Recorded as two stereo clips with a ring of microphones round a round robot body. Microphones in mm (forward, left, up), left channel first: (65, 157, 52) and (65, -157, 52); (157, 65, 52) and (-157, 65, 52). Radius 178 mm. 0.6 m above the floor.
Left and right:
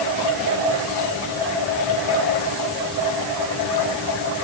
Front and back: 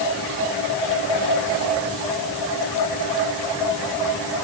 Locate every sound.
Only background noise.